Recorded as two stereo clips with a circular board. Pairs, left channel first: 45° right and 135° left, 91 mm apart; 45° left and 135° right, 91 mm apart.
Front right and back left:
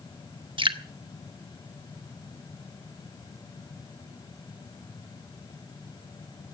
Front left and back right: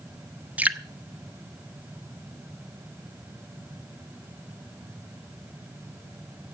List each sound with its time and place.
0.6 s dripping: 155° left, 0.9 m